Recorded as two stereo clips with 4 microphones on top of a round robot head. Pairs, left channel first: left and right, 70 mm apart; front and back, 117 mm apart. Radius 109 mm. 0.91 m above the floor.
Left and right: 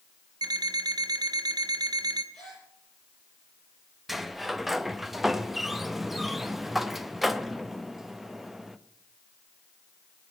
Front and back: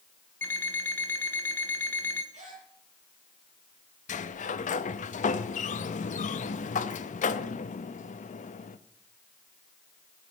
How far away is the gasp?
About 9.5 m.